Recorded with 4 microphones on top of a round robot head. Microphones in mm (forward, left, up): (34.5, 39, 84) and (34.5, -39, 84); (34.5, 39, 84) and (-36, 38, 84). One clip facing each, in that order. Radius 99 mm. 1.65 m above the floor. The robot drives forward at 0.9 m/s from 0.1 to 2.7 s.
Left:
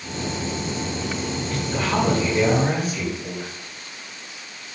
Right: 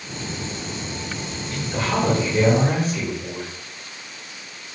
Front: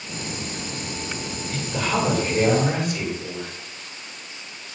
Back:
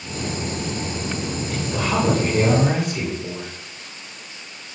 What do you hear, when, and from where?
1.5 s a woman speaking: 145° right, 5.5 m; by 3.5 s 150° right, 6.5 m